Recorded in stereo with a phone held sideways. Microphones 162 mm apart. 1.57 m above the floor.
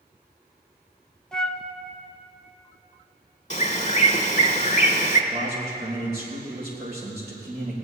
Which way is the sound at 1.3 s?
5° left (ahead or behind).